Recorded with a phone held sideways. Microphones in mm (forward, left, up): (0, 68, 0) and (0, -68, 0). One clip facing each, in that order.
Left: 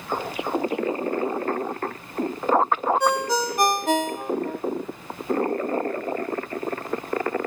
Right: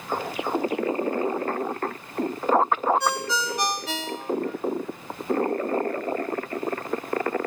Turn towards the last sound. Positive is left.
turn(degrees=50)  # may be behind; listen again after turning